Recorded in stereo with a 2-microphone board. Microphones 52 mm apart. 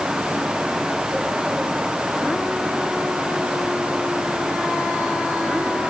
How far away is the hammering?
I don't hear hammering.